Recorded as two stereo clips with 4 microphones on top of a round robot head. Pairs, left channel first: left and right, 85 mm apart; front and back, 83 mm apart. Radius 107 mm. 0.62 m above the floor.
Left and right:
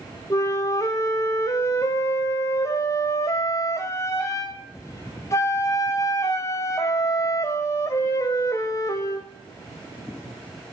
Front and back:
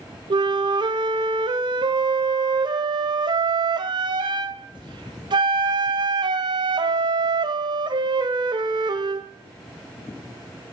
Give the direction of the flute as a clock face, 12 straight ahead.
7 o'clock.